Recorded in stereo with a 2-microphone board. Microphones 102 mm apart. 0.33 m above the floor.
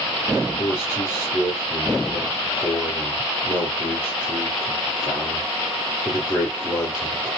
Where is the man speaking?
25° left (ahead or behind), 5.5 m.